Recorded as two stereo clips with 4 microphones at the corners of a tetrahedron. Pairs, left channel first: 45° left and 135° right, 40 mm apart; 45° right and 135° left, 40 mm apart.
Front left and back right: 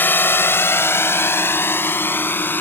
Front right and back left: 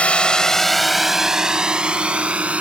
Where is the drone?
10° left; by 2.6 s 80° left.